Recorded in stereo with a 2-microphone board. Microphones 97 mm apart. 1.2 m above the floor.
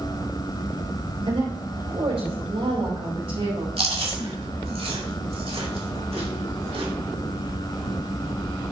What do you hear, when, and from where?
1.3 s a woman speaking: 90° right, 4.5 m; by 3.7 s 70° right (ahead or behind), 4.5 m
3.8 s chewing: 80° right, 2 m